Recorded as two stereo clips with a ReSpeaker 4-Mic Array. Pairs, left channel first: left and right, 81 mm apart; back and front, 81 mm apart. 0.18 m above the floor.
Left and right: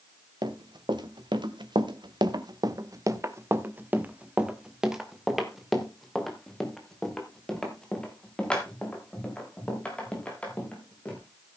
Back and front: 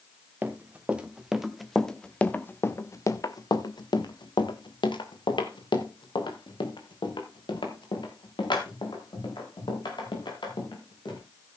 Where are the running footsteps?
70° right, 1.9 m; by 11.2 s 165° left, 6 m.